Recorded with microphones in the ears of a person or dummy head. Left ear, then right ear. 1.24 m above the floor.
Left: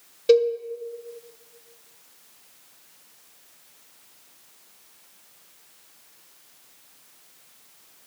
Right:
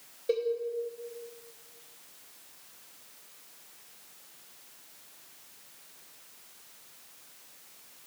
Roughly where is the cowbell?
Left.